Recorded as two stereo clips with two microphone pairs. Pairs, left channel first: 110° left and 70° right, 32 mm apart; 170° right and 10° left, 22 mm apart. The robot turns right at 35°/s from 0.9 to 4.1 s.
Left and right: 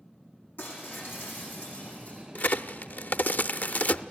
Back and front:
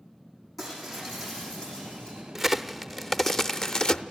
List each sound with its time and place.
0.6 s breaking glass: 100° left, 7.5 m; by 2.2 s 145° left, 7.5 m
2.4 s a crack: 90° left, 0.5 m; by 4.0 s 150° left, 0.5 m